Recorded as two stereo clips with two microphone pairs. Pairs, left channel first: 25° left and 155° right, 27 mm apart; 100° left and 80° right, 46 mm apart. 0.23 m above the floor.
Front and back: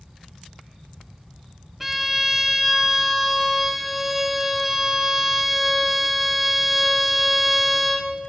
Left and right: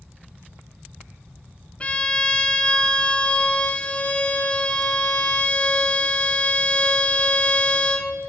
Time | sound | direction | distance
1.8 | a violin | 135° left | 0.5 m